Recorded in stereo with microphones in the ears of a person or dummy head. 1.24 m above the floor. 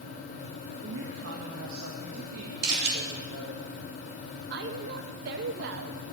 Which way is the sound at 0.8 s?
70° right (ahead or behind).